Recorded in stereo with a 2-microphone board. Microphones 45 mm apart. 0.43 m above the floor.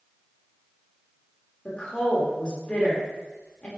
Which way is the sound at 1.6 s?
20° left (ahead or behind).